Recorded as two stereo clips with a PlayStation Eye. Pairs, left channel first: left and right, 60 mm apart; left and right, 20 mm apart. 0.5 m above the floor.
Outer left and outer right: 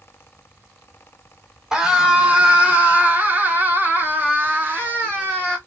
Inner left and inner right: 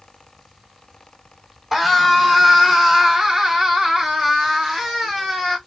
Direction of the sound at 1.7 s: 15° right (ahead or behind).